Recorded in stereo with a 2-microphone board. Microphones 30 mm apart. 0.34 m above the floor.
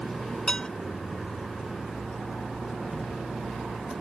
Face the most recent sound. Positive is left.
turn(degrees=30)  # may be behind; listen again after turning